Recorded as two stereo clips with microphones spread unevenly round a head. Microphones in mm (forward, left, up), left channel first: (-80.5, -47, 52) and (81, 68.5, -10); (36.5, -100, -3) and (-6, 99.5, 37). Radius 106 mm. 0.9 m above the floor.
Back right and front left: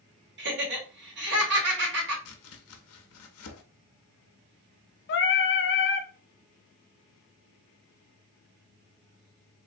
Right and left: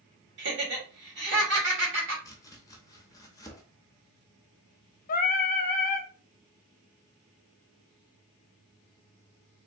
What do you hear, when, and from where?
0.4 s laughter: 65° left, 2.5 m
2.2 s chopping: 155° right, 0.7 m
5.1 s singing: 105° right, 0.6 m